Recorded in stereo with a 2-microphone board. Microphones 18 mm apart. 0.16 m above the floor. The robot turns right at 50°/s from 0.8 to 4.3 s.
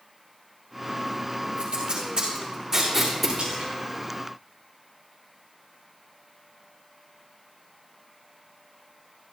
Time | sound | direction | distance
1.6 | tape being pulled | 85° right | 6.5 m
3.4 | a splash | 75° right (ahead or behind) | 4.5 m